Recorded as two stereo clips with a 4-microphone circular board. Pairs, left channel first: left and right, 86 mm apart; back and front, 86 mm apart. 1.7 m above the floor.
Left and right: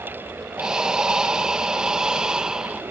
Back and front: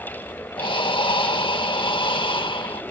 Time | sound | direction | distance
0.6 | breathing | 170° right | ?